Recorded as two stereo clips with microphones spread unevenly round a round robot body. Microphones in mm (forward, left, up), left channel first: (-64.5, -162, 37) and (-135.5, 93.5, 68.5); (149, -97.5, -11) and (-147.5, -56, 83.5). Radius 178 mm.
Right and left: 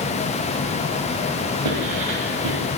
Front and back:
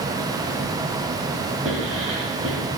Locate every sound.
1.6 s writing: 115° left, 2.5 m